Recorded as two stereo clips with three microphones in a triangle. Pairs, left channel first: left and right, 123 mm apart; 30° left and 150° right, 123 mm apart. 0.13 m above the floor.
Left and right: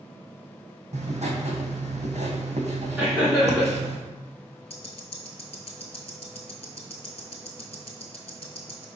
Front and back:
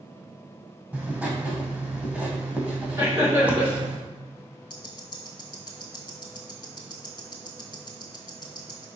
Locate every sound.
0.9 s writing: 70° right, 1.1 m
3.0 s laughter: 160° right, 1.2 m
4.7 s ticking: 75° left, 0.7 m